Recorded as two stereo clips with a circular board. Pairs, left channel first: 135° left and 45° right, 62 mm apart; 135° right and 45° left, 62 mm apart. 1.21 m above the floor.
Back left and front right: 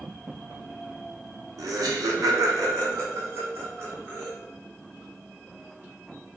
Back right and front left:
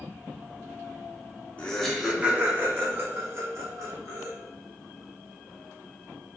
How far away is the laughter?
About 0.6 m.